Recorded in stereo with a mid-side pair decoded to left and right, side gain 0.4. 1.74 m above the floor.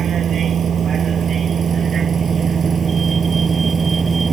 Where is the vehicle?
60° right; by 4.3 s 40° right.